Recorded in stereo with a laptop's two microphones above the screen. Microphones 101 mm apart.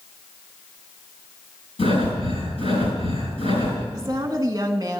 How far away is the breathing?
About 6 m.